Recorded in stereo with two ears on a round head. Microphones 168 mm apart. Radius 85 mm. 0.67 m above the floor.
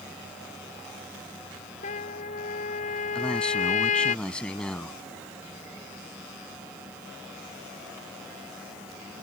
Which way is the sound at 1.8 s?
40° left (ahead or behind).